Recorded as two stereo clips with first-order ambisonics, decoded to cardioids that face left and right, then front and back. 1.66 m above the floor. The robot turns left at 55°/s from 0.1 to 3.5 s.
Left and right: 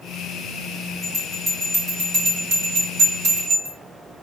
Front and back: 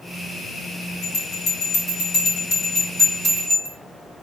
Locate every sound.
1.0 s a bell: 5° left, 2.5 m; by 3.8 s 130° right, 2.5 m